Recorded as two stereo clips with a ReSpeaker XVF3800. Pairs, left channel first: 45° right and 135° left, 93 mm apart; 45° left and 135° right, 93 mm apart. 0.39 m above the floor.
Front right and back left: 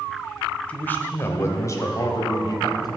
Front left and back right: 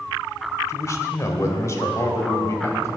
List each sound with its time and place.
0.7 s a man speaking: 20° left, 1.3 m; by 2.9 s 10° right, 2.5 m